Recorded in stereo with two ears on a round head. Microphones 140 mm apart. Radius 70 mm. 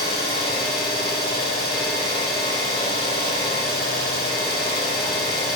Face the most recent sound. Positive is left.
turn(degrees=35)  # may be behind; listen again after turning